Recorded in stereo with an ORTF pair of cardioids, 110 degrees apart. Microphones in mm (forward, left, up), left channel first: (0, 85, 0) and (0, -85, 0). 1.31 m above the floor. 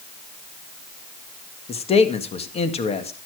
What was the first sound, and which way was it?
A man speaking, 35° left.